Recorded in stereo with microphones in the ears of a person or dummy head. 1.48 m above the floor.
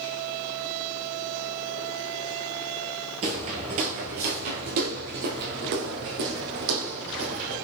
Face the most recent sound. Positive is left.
turn(degrees=-65)  # may be behind; listen again after turning